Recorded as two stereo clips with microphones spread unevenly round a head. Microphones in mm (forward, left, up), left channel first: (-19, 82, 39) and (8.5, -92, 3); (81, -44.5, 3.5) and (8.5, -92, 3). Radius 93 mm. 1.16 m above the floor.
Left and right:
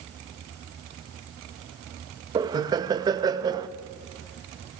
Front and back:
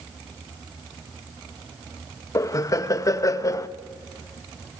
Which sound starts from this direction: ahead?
Laughter, at 2.4 s.